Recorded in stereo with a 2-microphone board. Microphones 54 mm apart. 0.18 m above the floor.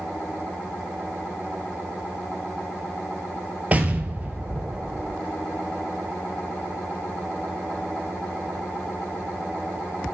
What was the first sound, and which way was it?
An explosion, 30° right (ahead or behind).